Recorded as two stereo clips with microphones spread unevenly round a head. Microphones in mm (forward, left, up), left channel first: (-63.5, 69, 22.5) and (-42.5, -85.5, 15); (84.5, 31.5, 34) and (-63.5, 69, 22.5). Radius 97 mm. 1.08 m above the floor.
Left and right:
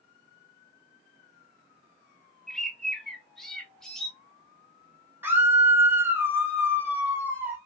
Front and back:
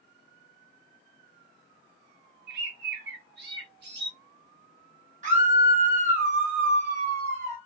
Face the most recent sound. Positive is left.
turn(degrees=-155)